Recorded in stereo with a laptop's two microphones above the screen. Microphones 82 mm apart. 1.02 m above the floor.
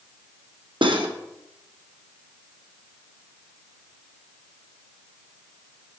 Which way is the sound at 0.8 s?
85° right.